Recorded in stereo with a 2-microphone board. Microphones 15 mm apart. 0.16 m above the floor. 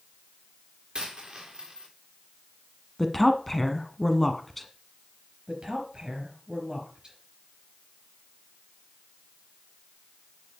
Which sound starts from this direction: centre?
A woman speaking, at 3.0 s.